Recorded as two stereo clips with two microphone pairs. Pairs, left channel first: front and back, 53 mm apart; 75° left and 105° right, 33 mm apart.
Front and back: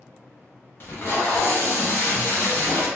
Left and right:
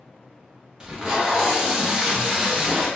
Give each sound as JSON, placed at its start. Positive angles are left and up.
{"t": 0.8, "sound": "tape being pulled", "azimuth_deg": -40, "distance_m": 0.7}